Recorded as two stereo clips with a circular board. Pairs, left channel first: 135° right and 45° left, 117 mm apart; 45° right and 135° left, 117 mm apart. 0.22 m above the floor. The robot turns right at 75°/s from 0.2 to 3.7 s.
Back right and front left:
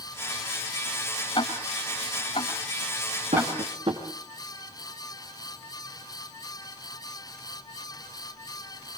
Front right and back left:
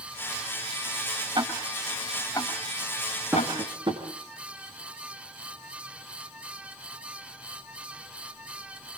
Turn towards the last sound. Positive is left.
turn(degrees=90)